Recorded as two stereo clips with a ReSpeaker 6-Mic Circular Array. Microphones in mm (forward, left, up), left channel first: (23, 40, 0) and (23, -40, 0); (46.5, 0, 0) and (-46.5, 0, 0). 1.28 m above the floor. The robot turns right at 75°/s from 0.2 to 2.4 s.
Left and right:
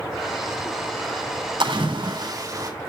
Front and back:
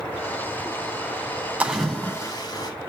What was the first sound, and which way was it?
A splash, 105° right.